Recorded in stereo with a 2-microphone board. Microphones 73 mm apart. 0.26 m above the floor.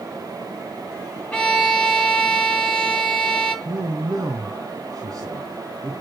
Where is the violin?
10° left (ahead or behind), 2.5 m.